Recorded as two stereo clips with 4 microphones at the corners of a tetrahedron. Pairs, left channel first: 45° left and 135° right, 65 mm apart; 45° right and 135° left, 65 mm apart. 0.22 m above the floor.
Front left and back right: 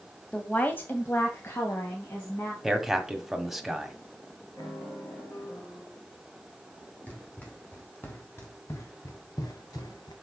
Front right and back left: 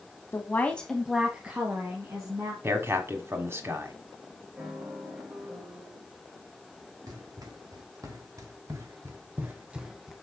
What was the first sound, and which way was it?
A woman speaking, 20° right.